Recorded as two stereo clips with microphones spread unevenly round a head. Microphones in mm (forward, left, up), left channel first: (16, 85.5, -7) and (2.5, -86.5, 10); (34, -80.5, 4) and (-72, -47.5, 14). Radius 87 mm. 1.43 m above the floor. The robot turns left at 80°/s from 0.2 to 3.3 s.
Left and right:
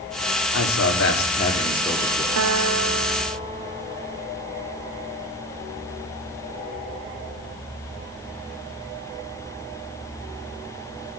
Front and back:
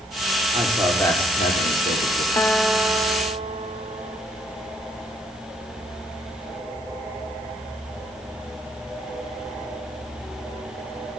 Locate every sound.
0.5 s a man speaking: 105° left, 3 m; by 2.3 s 35° right, 3 m
2.4 s a guitar: 85° right, 1.0 m; by 4.2 s 160° right, 1.0 m